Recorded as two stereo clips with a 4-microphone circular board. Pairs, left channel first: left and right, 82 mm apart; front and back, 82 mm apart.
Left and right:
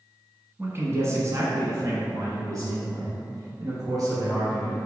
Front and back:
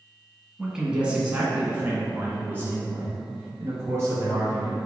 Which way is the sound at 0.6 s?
105° right.